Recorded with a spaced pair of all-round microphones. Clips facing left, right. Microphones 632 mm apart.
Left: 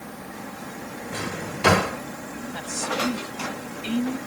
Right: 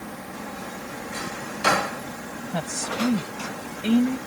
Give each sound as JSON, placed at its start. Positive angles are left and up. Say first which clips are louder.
{"t": 1.1, "sound": "a drawer", "louder": "left 5 dB", "side_deg": 75}
{"t": 2.5, "sound": "a woman speaking", "louder": "right 2 dB", "side_deg": -75}